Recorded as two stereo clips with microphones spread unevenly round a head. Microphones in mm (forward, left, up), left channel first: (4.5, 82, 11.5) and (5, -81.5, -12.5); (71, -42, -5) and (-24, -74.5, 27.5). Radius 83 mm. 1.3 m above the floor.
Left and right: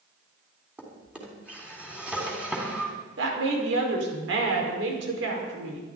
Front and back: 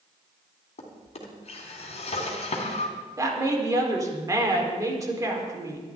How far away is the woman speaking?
About 4.5 m.